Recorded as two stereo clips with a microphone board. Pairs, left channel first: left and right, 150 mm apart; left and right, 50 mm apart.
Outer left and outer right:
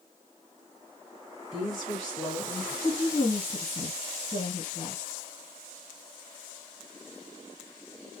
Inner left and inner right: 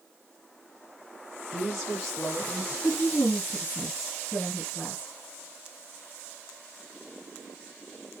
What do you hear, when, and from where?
1.5 s a woman speaking: 5° right (ahead or behind), 1.9 m; by 2.7 s 10° left (ahead or behind), 1.7 m
2.8 s a woman speaking: 30° left (ahead or behind), 1.7 m